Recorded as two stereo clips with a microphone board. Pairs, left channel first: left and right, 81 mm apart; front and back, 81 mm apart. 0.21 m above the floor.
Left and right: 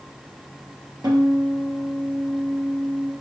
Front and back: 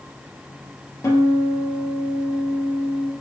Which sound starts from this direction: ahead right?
A guitar, at 1.0 s.